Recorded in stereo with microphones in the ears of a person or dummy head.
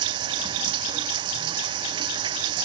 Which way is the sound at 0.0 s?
30° right (ahead or behind).